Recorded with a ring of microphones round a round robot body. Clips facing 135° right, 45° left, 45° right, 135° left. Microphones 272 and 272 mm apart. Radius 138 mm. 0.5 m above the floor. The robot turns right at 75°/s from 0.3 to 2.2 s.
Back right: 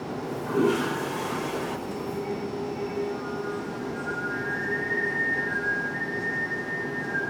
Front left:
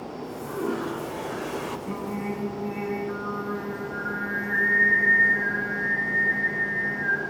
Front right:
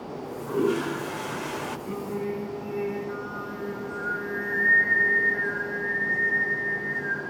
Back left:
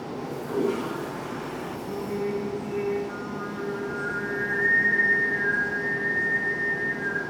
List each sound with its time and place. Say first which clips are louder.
0.1 s a toilet flushing: back right 8 dB, even; 140° right, 1.9 m; by 1.8 s 30° right, 1.9 m
1.9 s singing: even, back left 2 dB; 35° left, 6.5 m; by 7.2 s 60° left, 6.5 m